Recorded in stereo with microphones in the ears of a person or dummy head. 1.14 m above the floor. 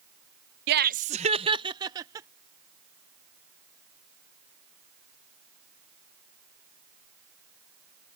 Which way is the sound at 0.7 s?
55° right (ahead or behind).